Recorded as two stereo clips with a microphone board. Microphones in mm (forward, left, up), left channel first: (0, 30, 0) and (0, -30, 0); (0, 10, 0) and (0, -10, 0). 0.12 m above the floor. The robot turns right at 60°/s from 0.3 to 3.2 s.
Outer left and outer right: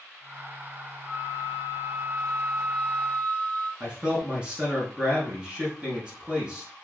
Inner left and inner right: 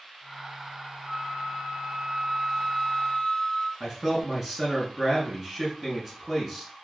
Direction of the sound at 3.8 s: 15° right (ahead or behind).